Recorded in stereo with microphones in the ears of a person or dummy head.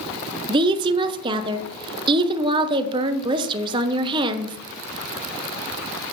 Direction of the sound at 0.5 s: 25° right (ahead or behind).